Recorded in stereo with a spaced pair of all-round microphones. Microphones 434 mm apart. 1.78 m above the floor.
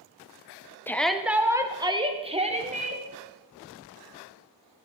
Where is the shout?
5° left (ahead or behind), 0.8 m; by 3.0 s 15° right (ahead or behind), 1.8 m.